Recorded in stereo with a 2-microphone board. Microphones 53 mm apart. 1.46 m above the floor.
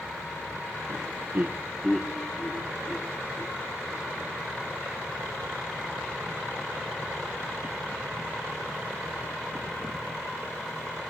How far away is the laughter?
About 1.1 m.